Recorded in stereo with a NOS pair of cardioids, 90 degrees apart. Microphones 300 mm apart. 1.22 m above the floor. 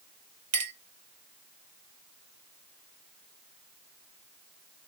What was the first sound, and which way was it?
A clink, 65° right.